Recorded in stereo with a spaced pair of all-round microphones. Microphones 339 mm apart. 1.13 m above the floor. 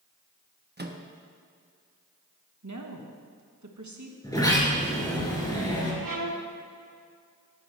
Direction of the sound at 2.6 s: 55° right (ahead or behind).